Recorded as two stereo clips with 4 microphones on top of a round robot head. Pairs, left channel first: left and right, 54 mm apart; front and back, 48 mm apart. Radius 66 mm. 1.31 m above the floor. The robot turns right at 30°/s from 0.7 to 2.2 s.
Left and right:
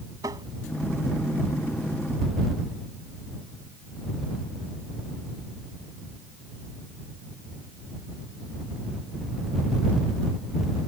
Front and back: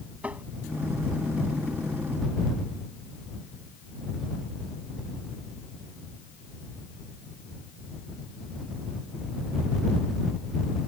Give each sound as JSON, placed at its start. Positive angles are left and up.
{"t": 0.2, "sound": "tapping", "azimuth_deg": -115}